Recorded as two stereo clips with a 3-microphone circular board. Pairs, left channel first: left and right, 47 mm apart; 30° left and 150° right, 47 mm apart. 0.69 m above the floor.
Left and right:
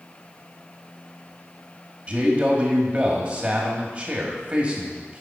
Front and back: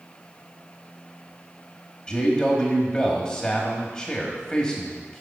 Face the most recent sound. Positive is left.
turn(degrees=-35)